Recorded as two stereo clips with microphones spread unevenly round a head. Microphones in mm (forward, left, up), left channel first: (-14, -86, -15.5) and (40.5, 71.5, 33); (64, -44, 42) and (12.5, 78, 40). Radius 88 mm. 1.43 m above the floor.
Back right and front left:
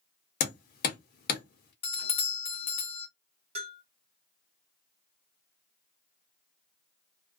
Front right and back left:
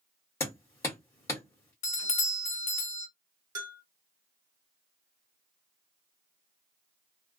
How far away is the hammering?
About 1.1 m.